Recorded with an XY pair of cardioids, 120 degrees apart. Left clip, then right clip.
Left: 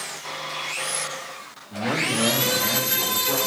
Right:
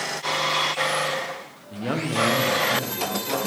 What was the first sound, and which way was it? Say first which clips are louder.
A man speaking: left 2 dB; 20° right.